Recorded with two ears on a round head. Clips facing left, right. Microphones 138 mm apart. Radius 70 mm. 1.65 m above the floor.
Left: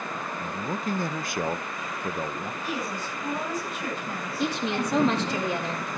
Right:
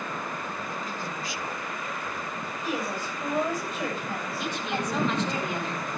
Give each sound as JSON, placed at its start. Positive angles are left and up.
{"t": 0.4, "sound": "a man speaking", "side_deg": 45, "distance_m": 0.7}
{"t": 2.6, "sound": "a woman speaking", "side_deg": -70, "distance_m": 8.5}
{"t": 4.4, "sound": "a woman speaking", "side_deg": 30, "distance_m": 4.0}